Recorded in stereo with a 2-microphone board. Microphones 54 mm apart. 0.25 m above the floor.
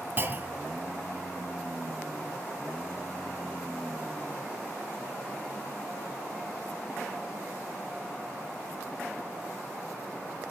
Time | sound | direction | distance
0.2 | a clunk | 40° right (ahead or behind) | 1.4 m